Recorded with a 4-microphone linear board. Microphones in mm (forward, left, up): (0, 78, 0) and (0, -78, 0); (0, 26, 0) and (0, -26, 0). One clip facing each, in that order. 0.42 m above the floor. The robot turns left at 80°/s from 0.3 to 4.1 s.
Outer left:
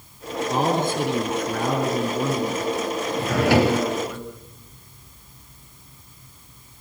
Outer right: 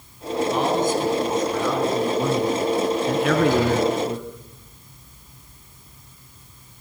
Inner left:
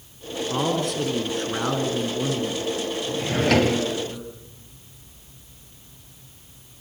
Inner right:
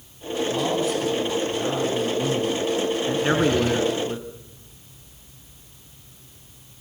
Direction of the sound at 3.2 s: 115° left.